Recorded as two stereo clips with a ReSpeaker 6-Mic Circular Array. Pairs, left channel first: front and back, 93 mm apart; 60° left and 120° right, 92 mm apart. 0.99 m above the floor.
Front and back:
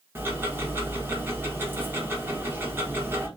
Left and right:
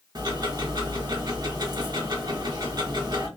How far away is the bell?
I don't hear a bell.